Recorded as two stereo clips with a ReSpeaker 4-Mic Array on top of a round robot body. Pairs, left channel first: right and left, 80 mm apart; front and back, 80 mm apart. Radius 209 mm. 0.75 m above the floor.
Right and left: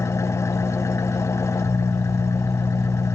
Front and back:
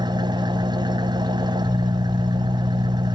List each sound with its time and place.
0.0 s an engine running: 145° right, 1.2 m